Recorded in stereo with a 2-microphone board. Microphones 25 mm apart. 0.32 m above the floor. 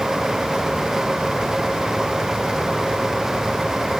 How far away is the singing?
No singing in this recording.